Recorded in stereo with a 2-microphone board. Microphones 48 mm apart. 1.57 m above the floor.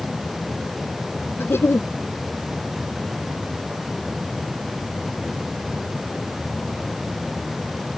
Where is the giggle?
55° left (ahead or behind).